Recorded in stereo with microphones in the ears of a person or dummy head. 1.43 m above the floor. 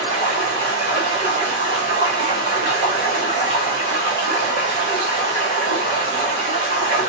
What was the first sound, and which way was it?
Running water, 25° right (ahead or behind).